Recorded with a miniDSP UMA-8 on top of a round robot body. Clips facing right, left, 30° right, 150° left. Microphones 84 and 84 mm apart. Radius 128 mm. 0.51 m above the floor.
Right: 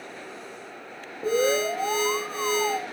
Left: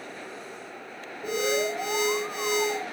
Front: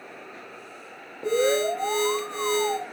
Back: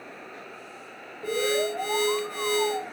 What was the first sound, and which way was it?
An alarm, 80° right.